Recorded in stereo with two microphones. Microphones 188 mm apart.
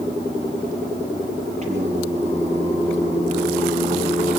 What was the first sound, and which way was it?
Singing, 40° right (ahead or behind).